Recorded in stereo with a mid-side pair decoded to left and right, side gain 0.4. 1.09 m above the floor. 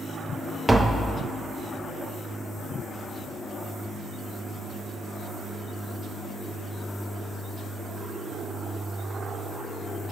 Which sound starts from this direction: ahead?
Tapping, at 0.7 s.